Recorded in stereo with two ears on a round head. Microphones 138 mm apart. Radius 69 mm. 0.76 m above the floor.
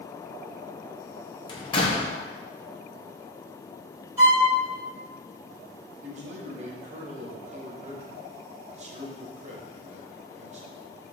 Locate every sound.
1.5 s a door slam: 30° left (ahead or behind), 0.8 m
4.2 s a violin: 20° right (ahead or behind), 1.8 m
6.0 s a man speaking: 45° right (ahead or behind), 0.9 m